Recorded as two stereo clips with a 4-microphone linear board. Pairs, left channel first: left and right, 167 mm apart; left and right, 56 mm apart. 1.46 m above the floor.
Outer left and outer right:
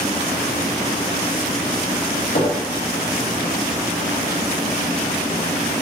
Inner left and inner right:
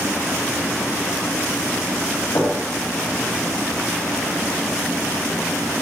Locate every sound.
2.4 s knocking: 70° left (ahead or behind), 2.5 m